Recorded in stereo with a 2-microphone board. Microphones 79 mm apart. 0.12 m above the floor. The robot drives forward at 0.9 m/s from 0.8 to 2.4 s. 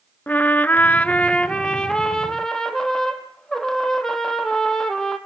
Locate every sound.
0.3 s a trumpet: 20° left (ahead or behind), 0.6 m; by 5.2 s 10° left (ahead or behind), 1.8 m